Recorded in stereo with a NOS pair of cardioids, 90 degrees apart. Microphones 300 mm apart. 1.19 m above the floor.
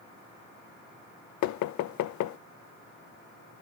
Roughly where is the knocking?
Left.